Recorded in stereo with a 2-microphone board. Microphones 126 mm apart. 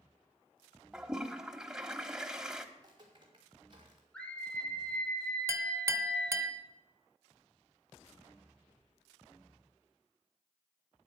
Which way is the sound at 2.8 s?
35° right (ahead or behind).